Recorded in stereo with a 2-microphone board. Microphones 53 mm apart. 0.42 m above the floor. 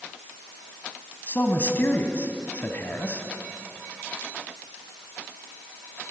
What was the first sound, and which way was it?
A man speaking, 40° left (ahead or behind).